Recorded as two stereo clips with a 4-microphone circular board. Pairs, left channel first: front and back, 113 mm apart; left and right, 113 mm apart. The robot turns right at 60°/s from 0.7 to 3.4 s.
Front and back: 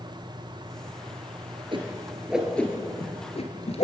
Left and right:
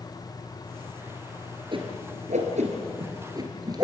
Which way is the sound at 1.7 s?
135° right.